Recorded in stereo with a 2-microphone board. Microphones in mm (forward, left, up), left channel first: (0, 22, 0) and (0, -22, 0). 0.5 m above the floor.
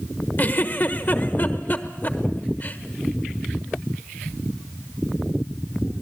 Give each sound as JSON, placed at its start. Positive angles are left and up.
{"t": 0.4, "sound": "a giggle", "side_deg": 40, "distance_m": 1.3}